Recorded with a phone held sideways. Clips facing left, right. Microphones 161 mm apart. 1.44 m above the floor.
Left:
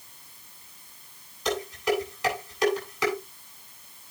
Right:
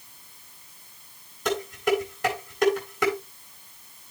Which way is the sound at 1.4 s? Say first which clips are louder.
Right 2 dB; 50° right (ahead or behind).